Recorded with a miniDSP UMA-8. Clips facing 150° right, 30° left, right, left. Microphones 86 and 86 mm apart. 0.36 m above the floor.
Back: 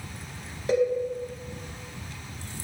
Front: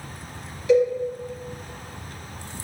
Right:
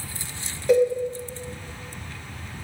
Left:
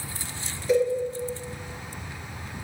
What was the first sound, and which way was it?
A cowbell, 105° right.